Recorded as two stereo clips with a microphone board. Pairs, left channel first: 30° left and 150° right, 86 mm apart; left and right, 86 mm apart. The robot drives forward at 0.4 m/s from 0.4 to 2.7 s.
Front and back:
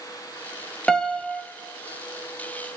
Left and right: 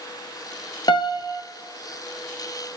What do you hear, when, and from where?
0.9 s a piano: 110° left, 0.8 m; by 1.4 s 125° left, 0.9 m